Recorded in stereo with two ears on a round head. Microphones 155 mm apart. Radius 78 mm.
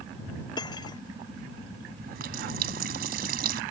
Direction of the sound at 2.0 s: 60° right (ahead or behind).